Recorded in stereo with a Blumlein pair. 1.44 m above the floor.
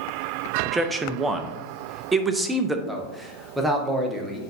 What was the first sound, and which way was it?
A man speaking, 10° right.